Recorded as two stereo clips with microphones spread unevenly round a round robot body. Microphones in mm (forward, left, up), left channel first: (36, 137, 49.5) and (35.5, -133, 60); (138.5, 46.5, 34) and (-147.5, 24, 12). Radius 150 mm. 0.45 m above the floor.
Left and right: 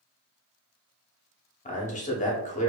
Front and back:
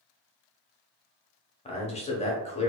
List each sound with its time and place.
1.6 s a man speaking: 60° left, 0.8 m